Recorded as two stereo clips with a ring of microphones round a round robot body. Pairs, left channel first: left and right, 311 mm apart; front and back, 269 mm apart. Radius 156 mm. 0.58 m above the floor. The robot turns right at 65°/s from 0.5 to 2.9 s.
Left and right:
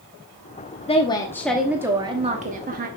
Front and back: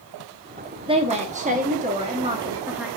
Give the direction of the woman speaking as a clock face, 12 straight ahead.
7 o'clock.